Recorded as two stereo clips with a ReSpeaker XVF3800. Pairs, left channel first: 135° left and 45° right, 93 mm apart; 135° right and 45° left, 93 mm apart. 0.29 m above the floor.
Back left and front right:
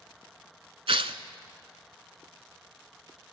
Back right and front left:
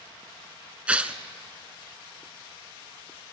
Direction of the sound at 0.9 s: 30° right.